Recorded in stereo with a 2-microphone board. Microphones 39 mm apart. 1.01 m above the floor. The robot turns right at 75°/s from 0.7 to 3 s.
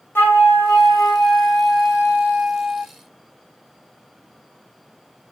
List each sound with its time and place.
0.1 s a flute: 100° left, 1.4 m; by 2.9 s 90° right, 1.4 m